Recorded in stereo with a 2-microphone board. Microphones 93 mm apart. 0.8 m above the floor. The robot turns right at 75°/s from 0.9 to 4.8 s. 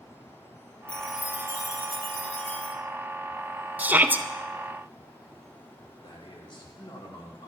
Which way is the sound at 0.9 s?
165° left.